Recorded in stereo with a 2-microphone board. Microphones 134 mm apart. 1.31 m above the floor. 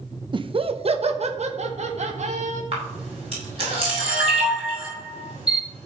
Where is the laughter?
35° right (ahead or behind), 0.6 m; by 2.6 s 60° right (ahead or behind), 2 m.